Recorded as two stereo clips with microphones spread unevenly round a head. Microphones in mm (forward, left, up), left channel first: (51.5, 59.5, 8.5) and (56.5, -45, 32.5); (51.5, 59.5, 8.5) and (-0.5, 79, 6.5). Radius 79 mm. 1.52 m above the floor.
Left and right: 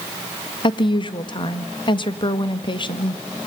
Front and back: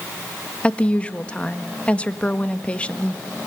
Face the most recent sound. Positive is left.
turn(degrees=45)